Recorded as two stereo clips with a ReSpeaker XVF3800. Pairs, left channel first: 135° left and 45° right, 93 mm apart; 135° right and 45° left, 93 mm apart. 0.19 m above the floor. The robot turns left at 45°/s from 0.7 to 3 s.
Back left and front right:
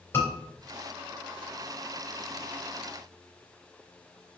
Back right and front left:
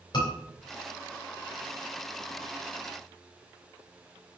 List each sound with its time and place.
0.1 s a scream: 165° right, 3.5 m